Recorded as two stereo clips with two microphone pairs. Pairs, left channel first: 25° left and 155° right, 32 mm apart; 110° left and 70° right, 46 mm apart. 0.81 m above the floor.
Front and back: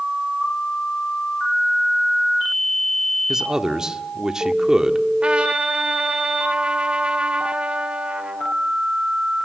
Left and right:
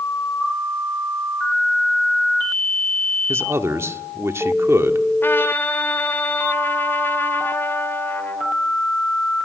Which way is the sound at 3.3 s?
85° right.